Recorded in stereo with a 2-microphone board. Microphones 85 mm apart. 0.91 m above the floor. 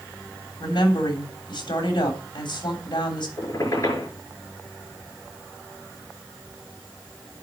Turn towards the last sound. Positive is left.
turn(degrees=40)  # may be behind; listen again after turning